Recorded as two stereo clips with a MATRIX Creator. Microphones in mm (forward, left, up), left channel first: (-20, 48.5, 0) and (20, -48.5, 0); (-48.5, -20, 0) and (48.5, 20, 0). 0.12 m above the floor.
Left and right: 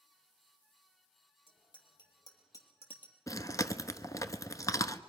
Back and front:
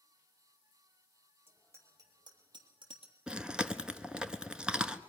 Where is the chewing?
100° left, 0.8 m.